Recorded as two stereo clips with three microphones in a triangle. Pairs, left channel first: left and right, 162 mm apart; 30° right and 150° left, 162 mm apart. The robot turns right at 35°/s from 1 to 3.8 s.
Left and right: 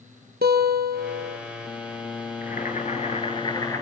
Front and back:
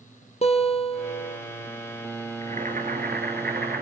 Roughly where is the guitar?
Right.